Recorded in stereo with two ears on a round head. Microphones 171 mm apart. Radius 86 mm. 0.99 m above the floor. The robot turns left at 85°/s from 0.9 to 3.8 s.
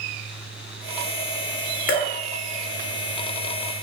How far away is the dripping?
About 0.6 m.